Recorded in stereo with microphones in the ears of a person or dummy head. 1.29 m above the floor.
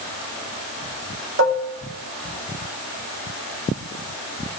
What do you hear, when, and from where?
1.4 s dishes clattering: 70° right (ahead or behind), 1.5 m